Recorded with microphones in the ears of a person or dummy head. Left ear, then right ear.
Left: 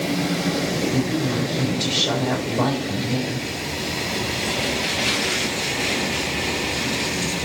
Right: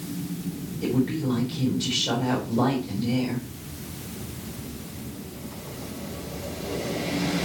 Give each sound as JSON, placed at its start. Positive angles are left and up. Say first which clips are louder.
{"t": 0.8, "sound": "a woman speaking", "louder": "left 4 dB", "side_deg": 10, "distance_m": 4.0}